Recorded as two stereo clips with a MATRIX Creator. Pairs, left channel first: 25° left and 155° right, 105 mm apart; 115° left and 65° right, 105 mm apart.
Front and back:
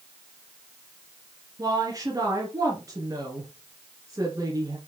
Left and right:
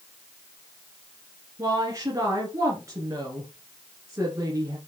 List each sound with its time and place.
1.6 s a woman speaking: 115° right, 2.5 m